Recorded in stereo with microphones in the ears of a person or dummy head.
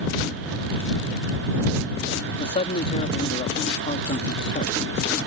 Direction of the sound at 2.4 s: 35° left (ahead or behind).